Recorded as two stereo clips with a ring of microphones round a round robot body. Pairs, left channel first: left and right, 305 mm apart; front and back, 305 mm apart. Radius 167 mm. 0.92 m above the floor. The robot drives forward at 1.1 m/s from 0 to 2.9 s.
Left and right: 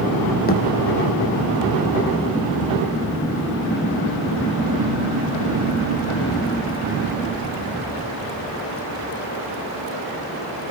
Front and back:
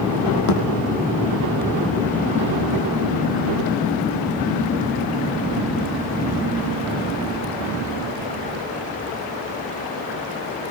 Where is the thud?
30° left, 4.5 m.